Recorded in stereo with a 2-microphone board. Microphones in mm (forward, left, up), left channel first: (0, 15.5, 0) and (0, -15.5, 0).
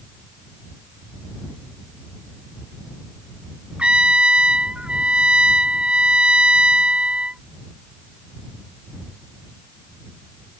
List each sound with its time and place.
3.8 s a trumpet: 40° right (ahead or behind)